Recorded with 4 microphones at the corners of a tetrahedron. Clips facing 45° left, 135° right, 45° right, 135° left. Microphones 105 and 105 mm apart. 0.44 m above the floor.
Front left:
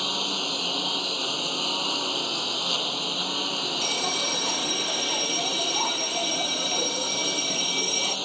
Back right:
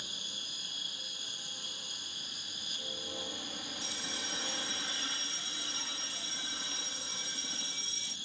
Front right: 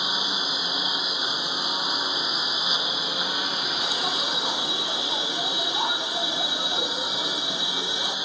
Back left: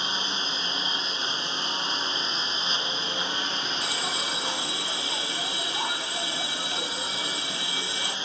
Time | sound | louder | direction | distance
0.0 | a lawn mower | front left 20 dB, front right 2 dB | 35° left | ?
3.8 | a bell | front left 14 dB, front right 3 dB | 25° left | ?